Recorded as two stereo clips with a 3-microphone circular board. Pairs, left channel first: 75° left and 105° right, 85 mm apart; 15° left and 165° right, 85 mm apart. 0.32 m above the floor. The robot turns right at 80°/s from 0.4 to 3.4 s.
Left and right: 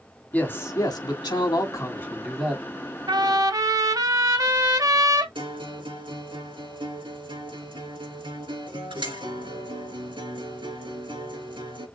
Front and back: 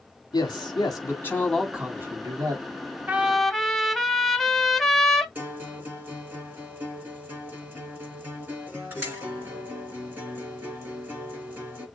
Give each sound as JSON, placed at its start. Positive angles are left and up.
{"t": 0.3, "sound": "a man speaking", "azimuth_deg": 10, "distance_m": 2.5}
{"t": 3.1, "sound": "a trumpet", "azimuth_deg": -100, "distance_m": 1.0}
{"t": 5.3, "sound": "a guitar", "azimuth_deg": -100, "distance_m": 4.5}